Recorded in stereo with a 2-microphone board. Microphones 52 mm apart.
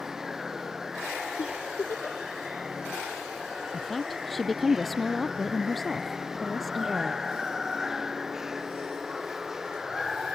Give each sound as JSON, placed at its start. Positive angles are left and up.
{"t": 0.0, "sound": "running water", "side_deg": -5}
{"t": 1.4, "sound": "a giggle", "side_deg": 55}
{"t": 3.7, "sound": "a woman speaking", "side_deg": 0}